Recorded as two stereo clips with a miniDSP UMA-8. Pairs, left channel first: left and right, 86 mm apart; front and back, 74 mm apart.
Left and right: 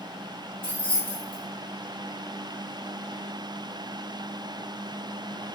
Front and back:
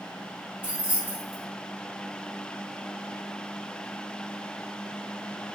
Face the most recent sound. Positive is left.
turn(degrees=110)